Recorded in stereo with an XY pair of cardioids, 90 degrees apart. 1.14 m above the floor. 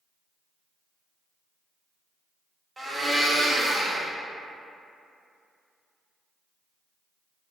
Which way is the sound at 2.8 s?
30° right.